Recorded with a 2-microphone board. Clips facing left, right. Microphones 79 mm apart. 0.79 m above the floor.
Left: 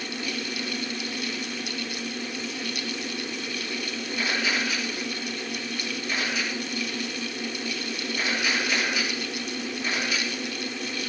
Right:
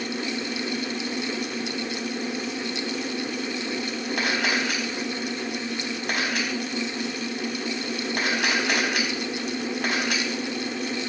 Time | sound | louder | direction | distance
4.2 | a camera shutter | right 2 dB | 75° right (ahead or behind) | 4.5 m